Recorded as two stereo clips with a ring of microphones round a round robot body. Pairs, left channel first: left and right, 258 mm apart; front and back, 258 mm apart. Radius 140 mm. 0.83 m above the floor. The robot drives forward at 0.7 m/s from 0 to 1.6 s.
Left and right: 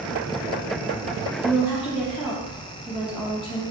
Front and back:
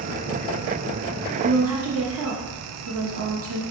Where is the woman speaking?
Straight behind, 0.6 m.